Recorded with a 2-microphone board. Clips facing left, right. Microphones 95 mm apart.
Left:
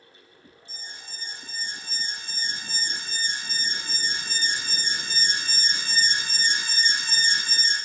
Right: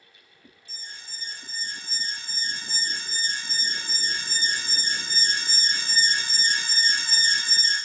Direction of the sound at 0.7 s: 20° left (ahead or behind).